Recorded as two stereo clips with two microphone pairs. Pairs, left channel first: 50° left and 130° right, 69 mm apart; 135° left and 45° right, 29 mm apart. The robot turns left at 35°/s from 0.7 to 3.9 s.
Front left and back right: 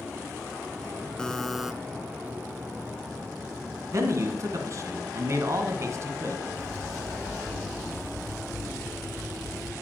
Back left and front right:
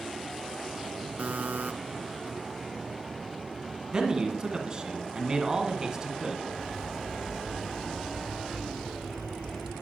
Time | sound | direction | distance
1.2 | a buzzer | 30° right | 0.5 m
3.9 | a man speaking | 105° right | 1.5 m
6.5 | a bird | 25° left | 1.9 m